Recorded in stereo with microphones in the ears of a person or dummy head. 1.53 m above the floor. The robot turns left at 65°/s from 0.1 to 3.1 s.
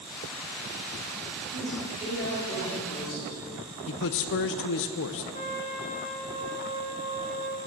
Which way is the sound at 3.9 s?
60° left (ahead or behind).